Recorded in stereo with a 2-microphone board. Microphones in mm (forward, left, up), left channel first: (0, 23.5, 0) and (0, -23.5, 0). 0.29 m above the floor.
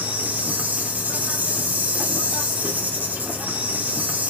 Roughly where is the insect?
Right.